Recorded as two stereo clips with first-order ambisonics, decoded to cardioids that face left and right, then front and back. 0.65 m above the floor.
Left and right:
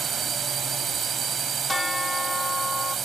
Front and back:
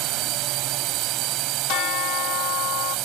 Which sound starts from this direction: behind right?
A drone, at 0.0 s.